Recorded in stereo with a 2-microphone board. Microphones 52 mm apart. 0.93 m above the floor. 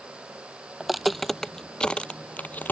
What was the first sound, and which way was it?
Footsteps, 5° right (ahead or behind).